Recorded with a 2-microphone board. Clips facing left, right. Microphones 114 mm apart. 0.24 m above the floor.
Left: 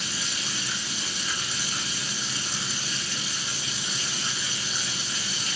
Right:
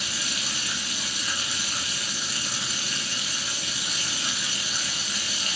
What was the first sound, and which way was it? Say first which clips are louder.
Running water: even; 80° right.